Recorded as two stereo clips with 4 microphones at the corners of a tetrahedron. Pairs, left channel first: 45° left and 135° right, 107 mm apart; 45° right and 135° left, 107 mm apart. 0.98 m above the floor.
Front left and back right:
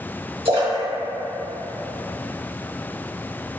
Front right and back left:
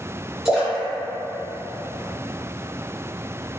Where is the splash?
145° right, 1.4 m.